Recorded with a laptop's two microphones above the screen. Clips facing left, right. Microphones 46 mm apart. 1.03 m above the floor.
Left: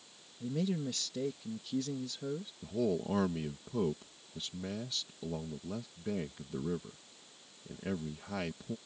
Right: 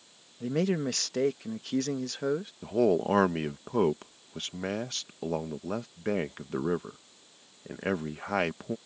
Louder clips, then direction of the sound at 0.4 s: Right 7 dB; 65° right (ahead or behind).